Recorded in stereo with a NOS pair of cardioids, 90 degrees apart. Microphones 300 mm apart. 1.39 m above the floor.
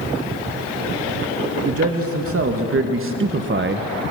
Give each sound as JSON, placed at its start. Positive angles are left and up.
{"t": 1.6, "sound": "a man speaking", "azimuth_deg": -50, "distance_m": 2.5}